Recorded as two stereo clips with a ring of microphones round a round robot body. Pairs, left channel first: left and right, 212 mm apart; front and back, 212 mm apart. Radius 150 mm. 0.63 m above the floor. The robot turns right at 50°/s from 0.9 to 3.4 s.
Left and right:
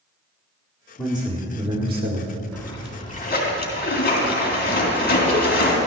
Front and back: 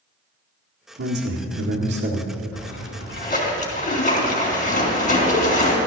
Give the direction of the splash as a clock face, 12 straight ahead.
12 o'clock.